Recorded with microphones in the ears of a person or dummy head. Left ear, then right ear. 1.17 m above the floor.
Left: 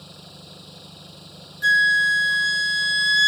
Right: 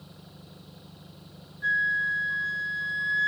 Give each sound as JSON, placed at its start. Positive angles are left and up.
{"t": 0.0, "sound": "an engine running", "side_deg": 50}
{"t": 1.6, "sound": "a flute", "side_deg": 80}